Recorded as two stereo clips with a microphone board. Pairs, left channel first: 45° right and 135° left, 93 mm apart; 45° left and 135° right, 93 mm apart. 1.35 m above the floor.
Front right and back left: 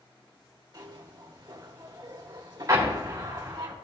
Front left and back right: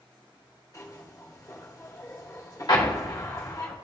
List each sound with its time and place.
0.7 s a zipper: 100° left, 2.5 m
2.7 s an explosion: 80° left, 2.5 m